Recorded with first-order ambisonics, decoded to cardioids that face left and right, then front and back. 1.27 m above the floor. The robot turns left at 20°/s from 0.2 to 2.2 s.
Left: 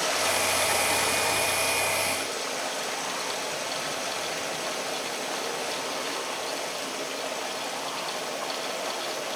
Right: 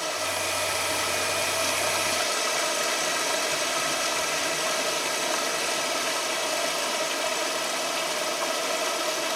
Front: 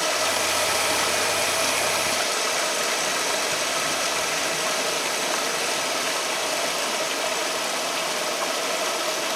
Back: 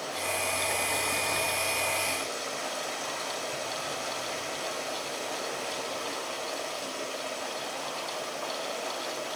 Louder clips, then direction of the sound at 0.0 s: Left 3 dB, front 9 dB; 20° left.